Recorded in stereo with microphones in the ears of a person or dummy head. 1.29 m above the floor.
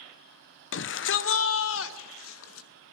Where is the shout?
55° left (ahead or behind), 0.9 m; by 2.7 s 75° left (ahead or behind), 2 m.